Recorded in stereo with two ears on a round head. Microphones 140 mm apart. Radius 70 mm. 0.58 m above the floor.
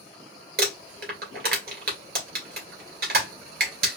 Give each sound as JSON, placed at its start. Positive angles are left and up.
{"t": 0.6, "sound": "crumpling", "side_deg": -65, "distance_m": 2.5}